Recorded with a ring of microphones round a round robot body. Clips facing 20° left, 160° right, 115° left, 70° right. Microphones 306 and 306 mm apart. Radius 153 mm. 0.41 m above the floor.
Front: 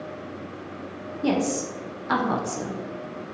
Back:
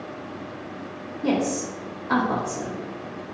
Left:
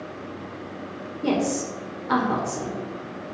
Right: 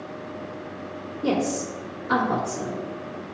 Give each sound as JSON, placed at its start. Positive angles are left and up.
{"t": 1.2, "sound": "a woman speaking", "azimuth_deg": 30, "distance_m": 0.9}